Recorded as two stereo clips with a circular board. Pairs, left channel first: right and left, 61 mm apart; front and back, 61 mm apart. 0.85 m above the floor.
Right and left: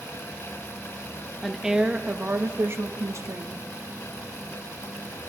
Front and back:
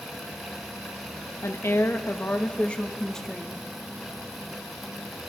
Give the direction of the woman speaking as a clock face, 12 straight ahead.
12 o'clock.